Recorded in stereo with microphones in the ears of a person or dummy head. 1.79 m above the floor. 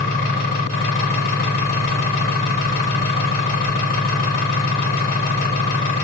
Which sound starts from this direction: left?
An engine running, at 0.0 s.